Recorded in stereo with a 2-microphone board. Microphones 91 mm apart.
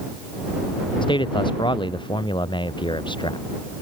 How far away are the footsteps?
I don't hear footsteps.